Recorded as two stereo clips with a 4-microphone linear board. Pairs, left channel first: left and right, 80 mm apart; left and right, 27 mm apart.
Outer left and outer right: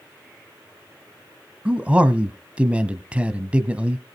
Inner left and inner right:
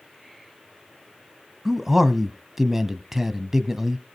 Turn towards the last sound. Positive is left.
turn(degrees=-15)  # may be behind; listen again after turning